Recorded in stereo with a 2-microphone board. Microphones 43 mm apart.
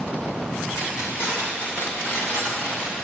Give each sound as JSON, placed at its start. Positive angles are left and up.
{"t": 0.8, "sound": "keys jangling", "side_deg": 85, "distance_m": 2.5}